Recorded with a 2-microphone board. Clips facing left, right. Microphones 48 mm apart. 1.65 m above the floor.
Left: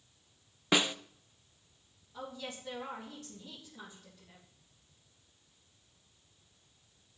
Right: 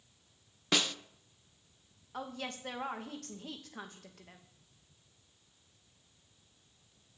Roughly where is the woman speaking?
Right.